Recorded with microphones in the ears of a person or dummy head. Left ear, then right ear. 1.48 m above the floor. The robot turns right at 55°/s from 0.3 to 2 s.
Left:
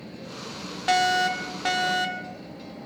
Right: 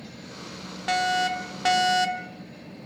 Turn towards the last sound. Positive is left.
turn(degrees=-20)  # may be behind; listen again after turning